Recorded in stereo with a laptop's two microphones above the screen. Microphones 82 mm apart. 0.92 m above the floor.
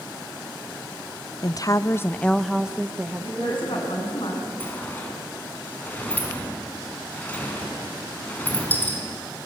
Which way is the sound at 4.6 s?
20° left (ahead or behind).